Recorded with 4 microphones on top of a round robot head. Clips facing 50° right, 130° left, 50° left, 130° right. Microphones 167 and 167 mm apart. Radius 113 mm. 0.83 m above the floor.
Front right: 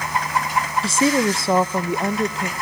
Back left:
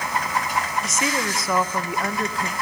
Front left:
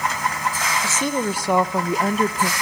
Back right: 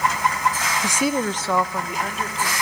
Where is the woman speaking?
75° right, 0.7 m; by 2.5 s 20° left, 1.1 m.